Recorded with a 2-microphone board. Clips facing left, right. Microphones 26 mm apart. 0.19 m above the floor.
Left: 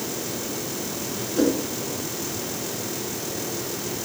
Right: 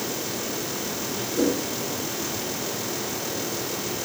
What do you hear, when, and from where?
1.4 s a whoosh: 15° left (ahead or behind), 1.6 m